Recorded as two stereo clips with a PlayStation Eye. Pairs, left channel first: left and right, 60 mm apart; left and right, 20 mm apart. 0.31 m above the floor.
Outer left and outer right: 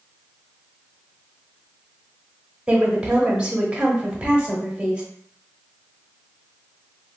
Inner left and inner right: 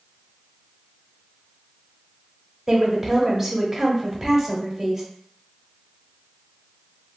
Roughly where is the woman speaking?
Centre.